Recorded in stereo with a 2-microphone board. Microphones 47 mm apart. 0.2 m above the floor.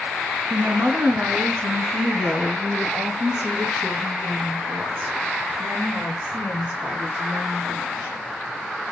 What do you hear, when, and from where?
0.5 s a woman speaking: 45° right (ahead or behind), 1.6 m; by 8.1 s 60° right (ahead or behind), 7.5 m